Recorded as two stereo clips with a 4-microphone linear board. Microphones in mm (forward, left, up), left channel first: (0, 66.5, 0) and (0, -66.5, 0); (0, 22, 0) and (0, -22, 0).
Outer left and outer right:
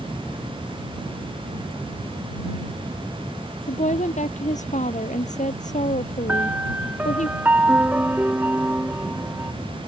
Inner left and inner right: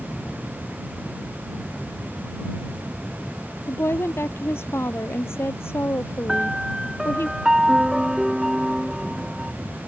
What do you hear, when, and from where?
3.7 s a woman speaking: 65° left (ahead or behind)
6.3 s a piano: 15° right (ahead or behind)